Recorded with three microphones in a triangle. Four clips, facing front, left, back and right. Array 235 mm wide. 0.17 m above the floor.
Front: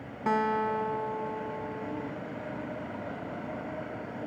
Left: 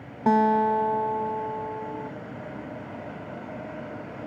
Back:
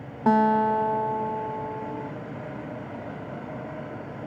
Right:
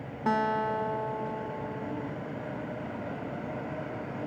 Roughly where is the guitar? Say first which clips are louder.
Left 7 dB, back 7 dB; behind left.